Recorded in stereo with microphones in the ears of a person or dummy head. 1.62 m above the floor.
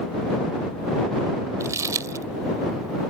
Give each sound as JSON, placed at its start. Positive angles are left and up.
{"t": 1.6, "sound": "crumpling", "side_deg": -20}